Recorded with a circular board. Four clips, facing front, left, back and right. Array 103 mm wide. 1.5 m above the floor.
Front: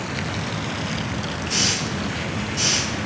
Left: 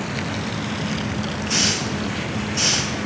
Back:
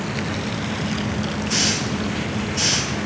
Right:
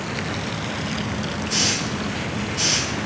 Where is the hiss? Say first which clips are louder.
Left 1 dB, back 2 dB; 90° left, 6 m.